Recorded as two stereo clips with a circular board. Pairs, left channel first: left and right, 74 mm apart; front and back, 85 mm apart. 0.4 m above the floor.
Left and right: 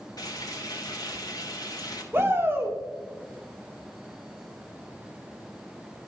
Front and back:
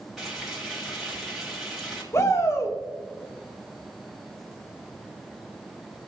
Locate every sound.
0.2 s frying: 95° left, 3 m
2.1 s a shout: 45° right, 1.9 m